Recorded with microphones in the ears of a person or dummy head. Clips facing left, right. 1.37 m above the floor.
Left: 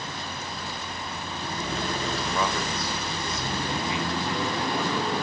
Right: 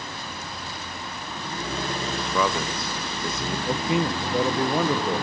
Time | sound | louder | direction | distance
2.1 | a man speaking | right 5 dB | 65° right (ahead or behind) | 2 m
3.7 | a man speaking | right 8 dB | 50° right (ahead or behind) | 1.3 m